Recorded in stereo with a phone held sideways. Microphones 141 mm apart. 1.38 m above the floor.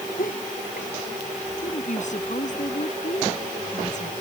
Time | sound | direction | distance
0.2 | laughter | 75° left (ahead or behind) | ?
1.6 | a woman speaking | 55° left (ahead or behind) | ?